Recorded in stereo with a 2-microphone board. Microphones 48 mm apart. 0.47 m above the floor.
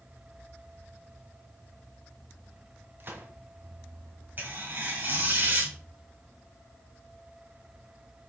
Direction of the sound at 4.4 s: 40° right (ahead or behind).